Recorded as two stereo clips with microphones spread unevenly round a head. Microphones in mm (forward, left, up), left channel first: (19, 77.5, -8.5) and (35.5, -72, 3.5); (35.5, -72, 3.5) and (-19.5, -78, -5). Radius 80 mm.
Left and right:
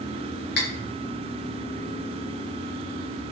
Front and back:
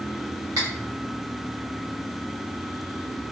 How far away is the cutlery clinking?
About 0.9 m.